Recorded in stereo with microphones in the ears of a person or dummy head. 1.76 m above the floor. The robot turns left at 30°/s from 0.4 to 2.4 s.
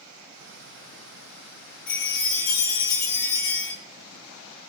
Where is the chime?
40° left (ahead or behind), 0.6 m; by 3.7 s 55° left (ahead or behind), 0.6 m.